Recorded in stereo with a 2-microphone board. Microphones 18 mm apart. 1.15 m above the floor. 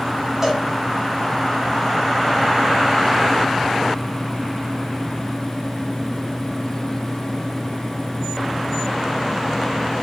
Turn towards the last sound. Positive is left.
turn(degrees=-20)  # may be behind; listen again after turning